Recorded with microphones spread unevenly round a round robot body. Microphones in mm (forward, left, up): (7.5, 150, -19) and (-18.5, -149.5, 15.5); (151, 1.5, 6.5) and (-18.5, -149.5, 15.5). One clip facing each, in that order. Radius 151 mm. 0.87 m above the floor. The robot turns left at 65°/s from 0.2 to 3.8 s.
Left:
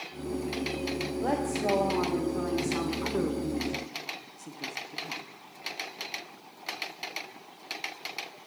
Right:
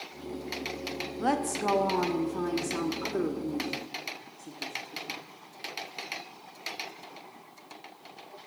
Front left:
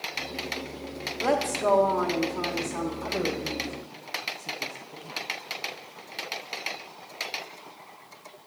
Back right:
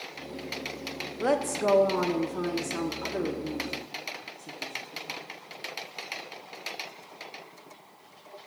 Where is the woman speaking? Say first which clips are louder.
Right 1 dB, even; 95° right, 0.6 m; by 5.3 s 95° left, 0.6 m.